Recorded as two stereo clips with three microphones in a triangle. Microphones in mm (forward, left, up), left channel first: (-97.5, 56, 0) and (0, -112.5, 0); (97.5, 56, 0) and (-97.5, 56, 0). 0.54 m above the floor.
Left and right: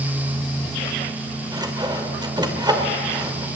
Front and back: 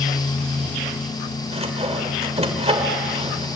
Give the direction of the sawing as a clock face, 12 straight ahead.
4 o'clock.